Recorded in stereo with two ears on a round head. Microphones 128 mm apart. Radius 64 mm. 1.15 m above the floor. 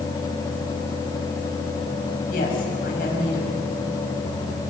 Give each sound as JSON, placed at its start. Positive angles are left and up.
{"t": 2.3, "sound": "a woman speaking", "side_deg": 70, "distance_m": 7.5}